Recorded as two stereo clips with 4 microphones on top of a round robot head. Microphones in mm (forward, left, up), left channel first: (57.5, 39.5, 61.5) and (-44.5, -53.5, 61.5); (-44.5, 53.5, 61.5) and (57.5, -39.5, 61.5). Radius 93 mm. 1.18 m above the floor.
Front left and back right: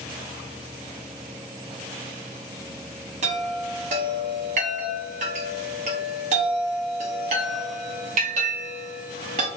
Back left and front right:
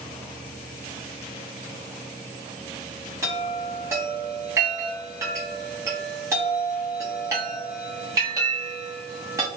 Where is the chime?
110° right, 0.7 m.